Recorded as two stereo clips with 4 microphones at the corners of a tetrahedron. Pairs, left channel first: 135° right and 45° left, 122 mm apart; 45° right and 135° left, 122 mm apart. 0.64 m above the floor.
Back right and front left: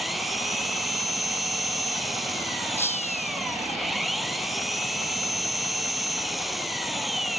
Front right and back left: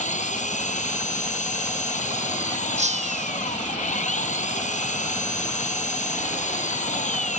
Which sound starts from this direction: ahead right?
An engine running, at 0.0 s.